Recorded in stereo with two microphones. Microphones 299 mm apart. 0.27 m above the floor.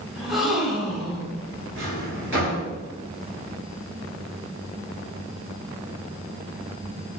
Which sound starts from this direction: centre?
A gasp, at 0.1 s.